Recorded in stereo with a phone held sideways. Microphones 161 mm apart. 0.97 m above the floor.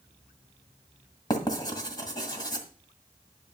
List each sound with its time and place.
1.3 s writing: 25° left (ahead or behind), 1.7 m